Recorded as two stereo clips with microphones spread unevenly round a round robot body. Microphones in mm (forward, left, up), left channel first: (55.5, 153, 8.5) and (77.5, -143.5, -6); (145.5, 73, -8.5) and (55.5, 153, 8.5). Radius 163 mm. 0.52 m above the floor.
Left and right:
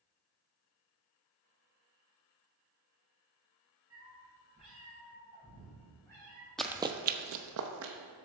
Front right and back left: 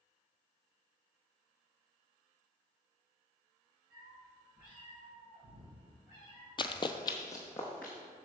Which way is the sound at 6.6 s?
10° left.